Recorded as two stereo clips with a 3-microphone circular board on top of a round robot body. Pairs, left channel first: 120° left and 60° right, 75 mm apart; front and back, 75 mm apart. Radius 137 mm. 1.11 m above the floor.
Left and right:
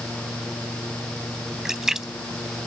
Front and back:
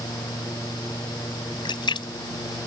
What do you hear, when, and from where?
1.6 s a splash: 25° left